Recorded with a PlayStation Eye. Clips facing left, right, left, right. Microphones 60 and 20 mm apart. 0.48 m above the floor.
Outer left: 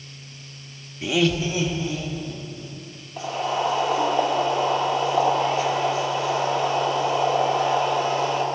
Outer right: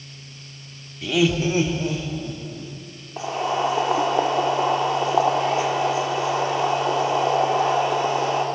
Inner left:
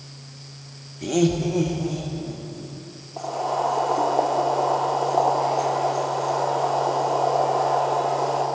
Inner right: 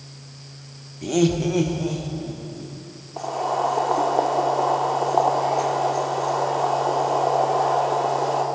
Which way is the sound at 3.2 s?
20° right (ahead or behind).